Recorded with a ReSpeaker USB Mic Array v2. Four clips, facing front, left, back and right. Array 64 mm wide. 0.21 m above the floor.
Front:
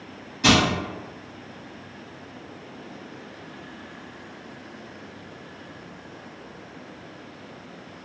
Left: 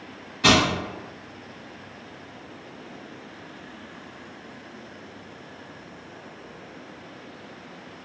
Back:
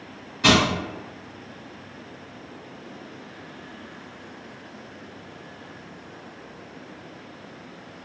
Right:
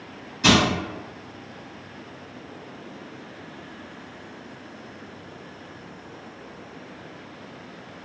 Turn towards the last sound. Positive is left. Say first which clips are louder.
# even, back 1 dB
turn(degrees=125)